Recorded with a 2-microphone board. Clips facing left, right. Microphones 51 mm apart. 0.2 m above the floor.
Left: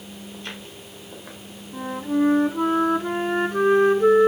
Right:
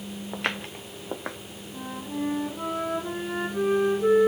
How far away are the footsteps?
About 1.0 m.